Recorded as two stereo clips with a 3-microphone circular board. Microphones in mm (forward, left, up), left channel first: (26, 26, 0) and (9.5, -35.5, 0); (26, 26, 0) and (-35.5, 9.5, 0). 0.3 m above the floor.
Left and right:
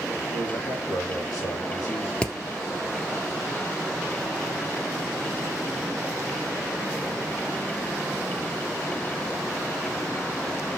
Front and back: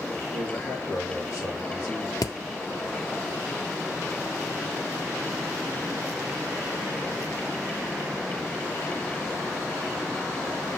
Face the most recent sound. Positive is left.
turn(degrees=0)